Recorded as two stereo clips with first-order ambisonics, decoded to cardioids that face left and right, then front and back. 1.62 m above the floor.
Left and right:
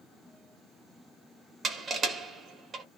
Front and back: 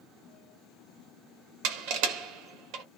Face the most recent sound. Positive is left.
turn(degrees=-160)